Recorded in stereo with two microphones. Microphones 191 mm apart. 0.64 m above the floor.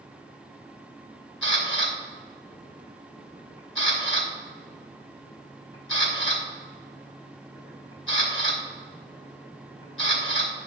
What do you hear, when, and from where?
1.4 s a camera shutter: 70° left (ahead or behind), 3 m